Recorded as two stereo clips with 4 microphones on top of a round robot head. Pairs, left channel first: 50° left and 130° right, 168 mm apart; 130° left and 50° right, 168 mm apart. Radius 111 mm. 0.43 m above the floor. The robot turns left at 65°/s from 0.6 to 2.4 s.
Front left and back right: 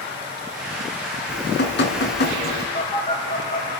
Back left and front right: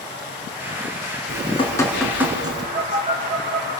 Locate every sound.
1.3 s dripping: 90° left, 4 m; by 2.6 s 20° left, 4 m
2.8 s a phone buzzing: 10° left, 6 m